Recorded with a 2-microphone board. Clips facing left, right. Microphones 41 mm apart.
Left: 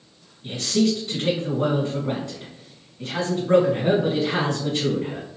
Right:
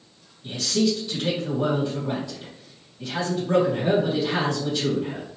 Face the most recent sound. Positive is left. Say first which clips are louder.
# left 2 dB
turn(degrees=55)  # may be behind; listen again after turning